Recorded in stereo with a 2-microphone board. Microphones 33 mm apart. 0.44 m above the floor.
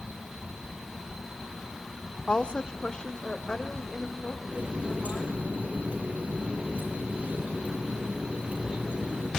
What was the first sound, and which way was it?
A woman speaking, 30° left (ahead or behind).